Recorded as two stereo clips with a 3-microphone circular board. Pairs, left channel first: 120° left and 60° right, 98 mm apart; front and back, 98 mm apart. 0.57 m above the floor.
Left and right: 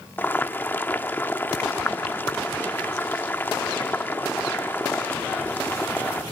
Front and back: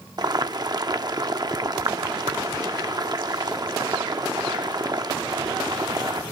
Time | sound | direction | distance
0.2 | boiling | straight behind | 0.8 m